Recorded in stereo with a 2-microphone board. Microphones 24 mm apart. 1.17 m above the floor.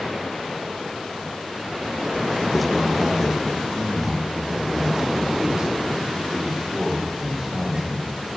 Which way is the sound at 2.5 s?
Centre (ahead or behind).